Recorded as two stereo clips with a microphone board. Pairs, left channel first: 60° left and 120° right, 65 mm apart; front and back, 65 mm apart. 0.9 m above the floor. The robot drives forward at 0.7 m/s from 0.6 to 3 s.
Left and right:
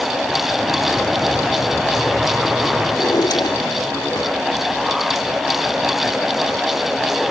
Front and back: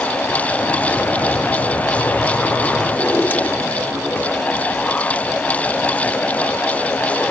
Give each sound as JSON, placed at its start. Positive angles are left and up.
{"t": 2.9, "sound": "a drawer", "azimuth_deg": 60}